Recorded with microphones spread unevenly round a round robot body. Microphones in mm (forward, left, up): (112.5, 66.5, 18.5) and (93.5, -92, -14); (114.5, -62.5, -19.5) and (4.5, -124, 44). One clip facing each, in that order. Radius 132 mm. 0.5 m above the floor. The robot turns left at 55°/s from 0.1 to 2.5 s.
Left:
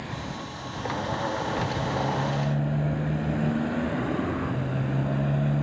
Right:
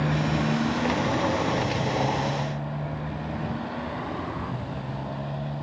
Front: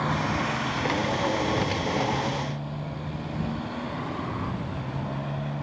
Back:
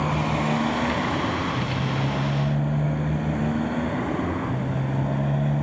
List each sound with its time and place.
0.0 s a motorcycle: 75° right; by 5.6 s 145° left